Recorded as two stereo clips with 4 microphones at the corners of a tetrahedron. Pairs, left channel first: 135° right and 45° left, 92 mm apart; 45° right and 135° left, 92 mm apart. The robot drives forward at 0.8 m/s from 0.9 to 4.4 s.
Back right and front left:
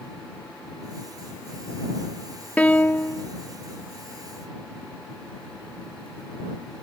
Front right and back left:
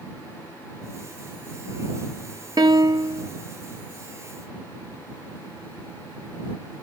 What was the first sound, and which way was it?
A piano, 155° left.